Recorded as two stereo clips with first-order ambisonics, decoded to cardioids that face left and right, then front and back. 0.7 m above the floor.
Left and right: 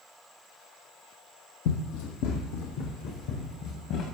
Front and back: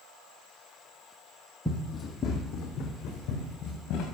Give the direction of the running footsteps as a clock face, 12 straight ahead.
9 o'clock.